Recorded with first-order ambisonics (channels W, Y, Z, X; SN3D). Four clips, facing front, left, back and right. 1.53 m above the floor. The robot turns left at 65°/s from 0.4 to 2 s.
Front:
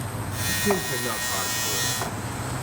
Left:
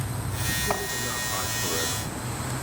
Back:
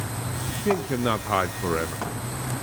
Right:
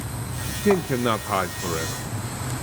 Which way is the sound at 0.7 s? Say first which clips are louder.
Right 8 dB, back 4 dB; 95° right.